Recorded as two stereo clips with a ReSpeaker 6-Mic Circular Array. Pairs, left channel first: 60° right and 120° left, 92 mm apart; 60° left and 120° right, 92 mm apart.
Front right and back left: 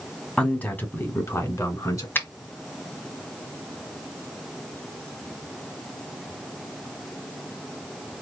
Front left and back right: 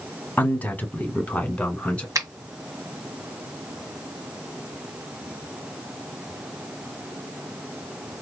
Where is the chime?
I don't hear a chime.